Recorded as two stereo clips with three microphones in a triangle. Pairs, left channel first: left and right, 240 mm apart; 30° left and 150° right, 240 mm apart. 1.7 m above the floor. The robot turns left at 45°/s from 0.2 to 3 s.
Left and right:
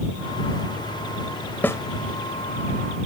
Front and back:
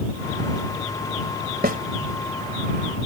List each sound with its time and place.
1.6 s a snare drum: 170° left; by 1.8 s 165° left